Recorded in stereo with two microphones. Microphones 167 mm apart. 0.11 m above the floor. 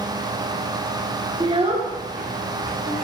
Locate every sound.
1.4 s a child speaking: 25° right (ahead or behind), 0.7 m; by 2.9 s 65° right (ahead or behind), 1.7 m